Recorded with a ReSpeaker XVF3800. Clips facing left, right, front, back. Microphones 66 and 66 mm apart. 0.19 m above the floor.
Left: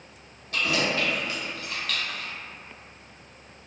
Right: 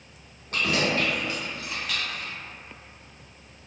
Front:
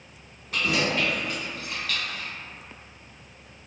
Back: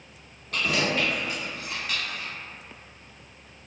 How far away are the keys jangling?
About 1.1 m.